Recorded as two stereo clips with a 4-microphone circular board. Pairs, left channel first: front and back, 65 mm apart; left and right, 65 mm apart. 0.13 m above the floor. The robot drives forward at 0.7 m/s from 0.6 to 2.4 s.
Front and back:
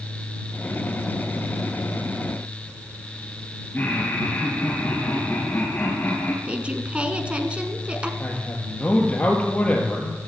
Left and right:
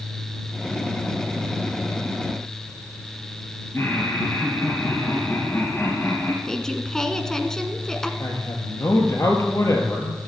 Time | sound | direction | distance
3.7 | laughter | 55° left | 2.5 m
6.5 | a woman speaking | 155° left | 1.1 m
8.2 | a man speaking | 65° left | 2.5 m